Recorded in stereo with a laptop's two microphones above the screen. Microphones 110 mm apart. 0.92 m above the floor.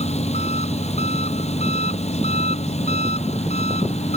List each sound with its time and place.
0.0 s an engine running: 85° left